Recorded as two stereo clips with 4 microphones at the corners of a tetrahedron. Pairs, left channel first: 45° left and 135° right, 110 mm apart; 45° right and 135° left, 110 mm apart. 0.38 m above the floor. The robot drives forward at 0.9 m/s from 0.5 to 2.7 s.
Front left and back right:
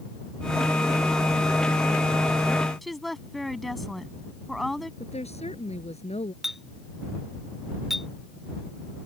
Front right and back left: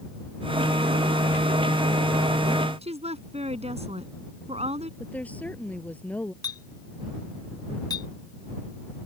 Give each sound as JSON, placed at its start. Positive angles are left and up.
{"t": 2.8, "sound": "a woman speaking", "azimuth_deg": 135}
{"t": 5.0, "sound": "a woman speaking", "azimuth_deg": 30}
{"t": 6.4, "sound": "a clink", "azimuth_deg": -50}